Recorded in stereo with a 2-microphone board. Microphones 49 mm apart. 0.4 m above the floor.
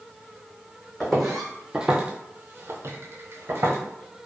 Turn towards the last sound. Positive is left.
turn(degrees=-50)  # may be behind; listen again after turning